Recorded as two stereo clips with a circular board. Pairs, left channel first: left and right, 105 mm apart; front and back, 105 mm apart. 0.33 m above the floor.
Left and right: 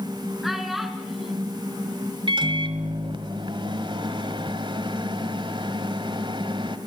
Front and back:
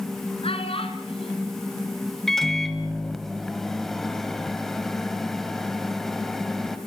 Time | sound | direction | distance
0.4 | a child speaking | straight ahead | 3.5 m
2.3 | a microwave | 85° right | 1.6 m